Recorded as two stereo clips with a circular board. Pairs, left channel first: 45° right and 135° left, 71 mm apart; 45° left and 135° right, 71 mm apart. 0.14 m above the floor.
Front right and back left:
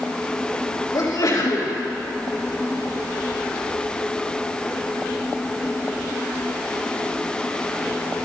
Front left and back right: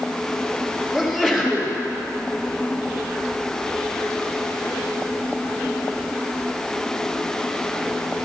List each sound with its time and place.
0.9 s a sneeze: 50° right, 3 m